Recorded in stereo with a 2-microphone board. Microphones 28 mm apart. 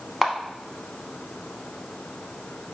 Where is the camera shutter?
5° right (ahead or behind), 0.8 m.